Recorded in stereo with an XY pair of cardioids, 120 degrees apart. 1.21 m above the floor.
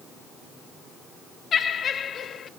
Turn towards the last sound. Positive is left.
turn(degrees=45)